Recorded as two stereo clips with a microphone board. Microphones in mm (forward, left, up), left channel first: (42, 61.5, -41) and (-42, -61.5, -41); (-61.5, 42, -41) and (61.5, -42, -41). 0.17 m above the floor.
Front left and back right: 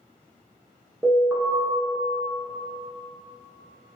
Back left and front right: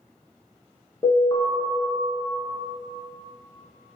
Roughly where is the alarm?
Behind.